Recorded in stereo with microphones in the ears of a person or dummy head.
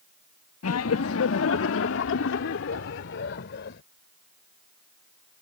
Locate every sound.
0.6 s laughter: 80° left; by 3.8 s 65° left (ahead or behind)